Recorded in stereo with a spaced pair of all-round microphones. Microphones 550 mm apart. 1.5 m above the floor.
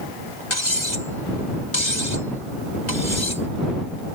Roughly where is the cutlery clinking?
Left.